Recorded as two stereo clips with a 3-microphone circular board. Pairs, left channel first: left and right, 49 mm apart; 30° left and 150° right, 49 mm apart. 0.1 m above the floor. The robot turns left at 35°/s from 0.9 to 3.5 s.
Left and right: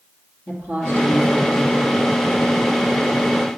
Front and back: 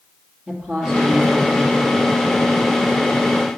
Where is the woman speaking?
135° left, 2.5 m; by 1.8 s 100° left, 2.5 m.